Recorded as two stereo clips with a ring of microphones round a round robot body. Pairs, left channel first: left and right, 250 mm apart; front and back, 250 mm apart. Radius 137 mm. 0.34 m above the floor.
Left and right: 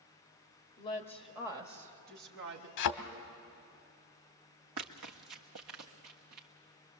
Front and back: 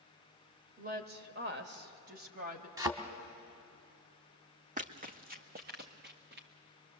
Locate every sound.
0.8 s a woman speaking: 140° left, 1.3 m; by 2.7 s 125° right, 2 m
2.8 s a thud: 100° left, 1.0 m
4.8 s running footsteps: 120° right, 1.0 m; by 6.5 s 130° right, 1.9 m